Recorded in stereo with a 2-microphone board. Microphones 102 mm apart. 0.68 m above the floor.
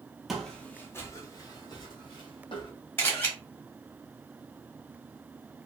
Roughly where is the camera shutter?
Centre.